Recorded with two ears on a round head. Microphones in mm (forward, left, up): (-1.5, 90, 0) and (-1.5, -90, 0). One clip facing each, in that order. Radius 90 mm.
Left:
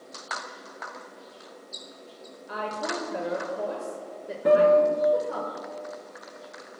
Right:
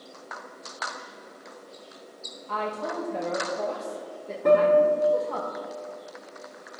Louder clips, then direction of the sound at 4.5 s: Even; 5° left (ahead or behind).